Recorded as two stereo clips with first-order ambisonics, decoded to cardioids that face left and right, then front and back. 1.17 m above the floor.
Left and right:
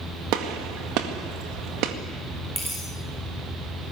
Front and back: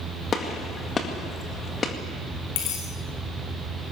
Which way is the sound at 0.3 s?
65° right.